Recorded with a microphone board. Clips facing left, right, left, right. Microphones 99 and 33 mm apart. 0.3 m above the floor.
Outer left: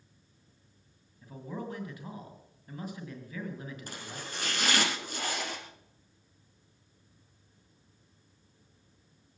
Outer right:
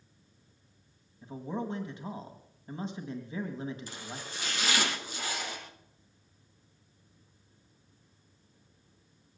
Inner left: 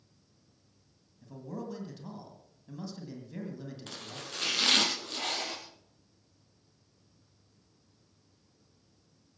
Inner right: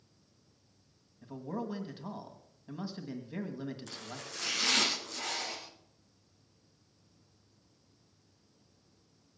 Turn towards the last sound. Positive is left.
turn(degrees=55)  # may be behind; listen again after turning